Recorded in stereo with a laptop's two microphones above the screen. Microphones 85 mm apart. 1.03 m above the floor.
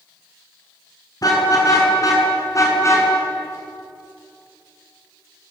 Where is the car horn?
45° left (ahead or behind), 7.5 m; by 3.1 s 35° left (ahead or behind), 7 m.